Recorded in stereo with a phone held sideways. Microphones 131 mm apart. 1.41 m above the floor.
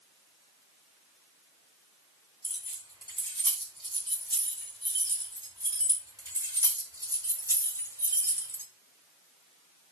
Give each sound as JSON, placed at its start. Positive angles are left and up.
{"t": 2.4, "sound": "keys jangling", "side_deg": -35, "distance_m": 4.5}